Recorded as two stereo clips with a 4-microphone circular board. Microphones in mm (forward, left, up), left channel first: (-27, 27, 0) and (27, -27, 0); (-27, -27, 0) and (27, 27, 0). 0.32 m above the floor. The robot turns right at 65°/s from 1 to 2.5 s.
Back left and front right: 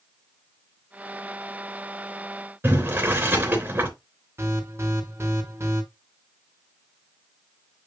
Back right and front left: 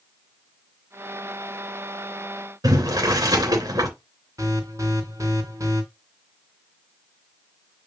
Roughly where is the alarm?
Ahead.